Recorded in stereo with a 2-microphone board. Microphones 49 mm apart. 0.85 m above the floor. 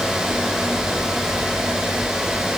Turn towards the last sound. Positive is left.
No sound to turn to.